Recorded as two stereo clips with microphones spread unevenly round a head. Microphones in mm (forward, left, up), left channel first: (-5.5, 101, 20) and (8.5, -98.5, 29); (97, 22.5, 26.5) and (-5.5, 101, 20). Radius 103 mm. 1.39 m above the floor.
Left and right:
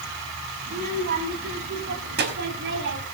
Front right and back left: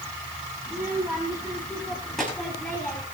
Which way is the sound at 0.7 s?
135° right.